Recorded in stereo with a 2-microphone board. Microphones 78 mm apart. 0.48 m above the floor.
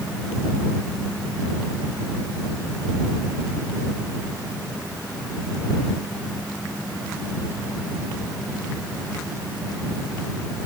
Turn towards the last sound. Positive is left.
No sound to turn to.